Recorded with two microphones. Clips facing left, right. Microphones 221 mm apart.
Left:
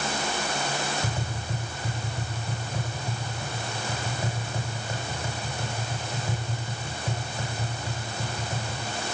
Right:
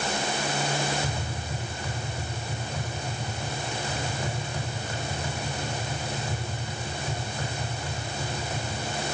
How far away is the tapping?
About 8 m.